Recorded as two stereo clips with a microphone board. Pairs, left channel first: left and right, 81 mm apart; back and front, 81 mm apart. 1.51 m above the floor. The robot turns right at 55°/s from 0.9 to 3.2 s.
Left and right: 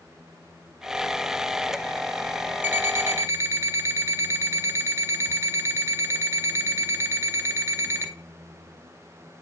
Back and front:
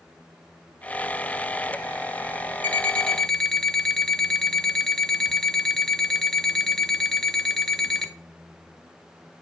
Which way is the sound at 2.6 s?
130° right.